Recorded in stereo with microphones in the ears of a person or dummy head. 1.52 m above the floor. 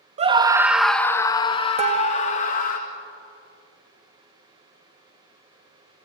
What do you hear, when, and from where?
0.2 s a scream: 30° right (ahead or behind), 1.4 m; by 2.8 s 50° left (ahead or behind), 3.5 m
1.8 s dishes clattering: 30° right (ahead or behind), 1.8 m